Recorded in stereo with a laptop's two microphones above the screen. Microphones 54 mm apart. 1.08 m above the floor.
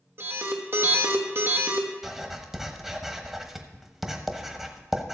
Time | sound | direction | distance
0.2 | an alarm | 50° right (ahead or behind) | 1.2 m
2.0 | writing | 5° right (ahead or behind) | 1.0 m